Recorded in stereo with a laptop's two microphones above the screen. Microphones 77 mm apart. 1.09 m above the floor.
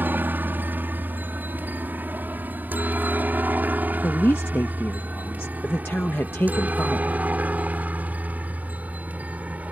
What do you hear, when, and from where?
0.0 s a helicopter: 25° right (ahead or behind); by 9.7 s 20° right (ahead or behind)
4.0 s a woman speaking: 30° left (ahead or behind)